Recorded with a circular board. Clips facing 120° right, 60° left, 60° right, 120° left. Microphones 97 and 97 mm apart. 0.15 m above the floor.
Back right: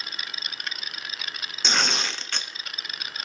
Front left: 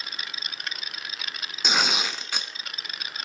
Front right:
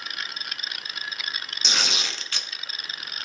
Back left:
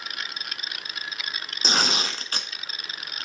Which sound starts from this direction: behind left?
Tearing paper, at 1.6 s.